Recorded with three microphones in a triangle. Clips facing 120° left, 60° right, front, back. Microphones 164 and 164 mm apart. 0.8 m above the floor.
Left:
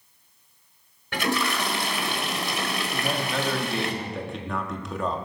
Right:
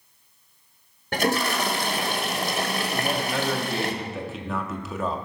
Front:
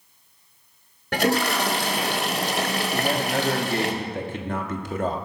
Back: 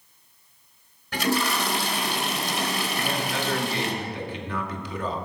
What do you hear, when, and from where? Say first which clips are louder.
1.1 s a toilet flushing: right 2 dB, front 3 dB; 15° right, 1.8 m
2.9 s a man speaking: even, front 4 dB; 25° left, 1.7 m